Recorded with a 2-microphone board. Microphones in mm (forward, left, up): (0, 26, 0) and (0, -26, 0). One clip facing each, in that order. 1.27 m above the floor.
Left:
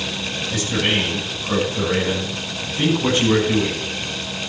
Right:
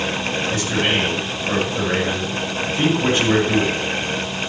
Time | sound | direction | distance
0.5 | a man speaking | 35° right (ahead or behind) | 9.5 m